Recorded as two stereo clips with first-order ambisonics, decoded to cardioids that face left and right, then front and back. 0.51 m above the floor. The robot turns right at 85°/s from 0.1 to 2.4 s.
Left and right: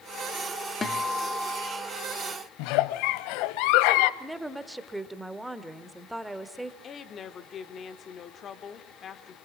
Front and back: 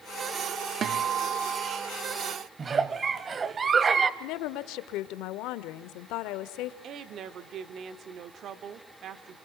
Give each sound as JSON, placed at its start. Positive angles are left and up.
{"t": 0.8, "sound": "a guitar", "azimuth_deg": 150, "distance_m": 1.5}
{"t": 2.6, "sound": "a giggle", "azimuth_deg": 110, "distance_m": 0.9}
{"t": 4.2, "sound": "a woman speaking", "azimuth_deg": -5, "distance_m": 1.4}
{"t": 6.8, "sound": "a woman speaking", "azimuth_deg": 140, "distance_m": 1.3}